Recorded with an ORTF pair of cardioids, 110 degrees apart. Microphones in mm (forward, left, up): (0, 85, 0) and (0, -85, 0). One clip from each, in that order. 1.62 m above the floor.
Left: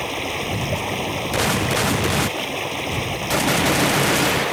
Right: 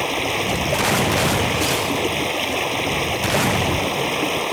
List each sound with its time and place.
0.0 s running water: 20° right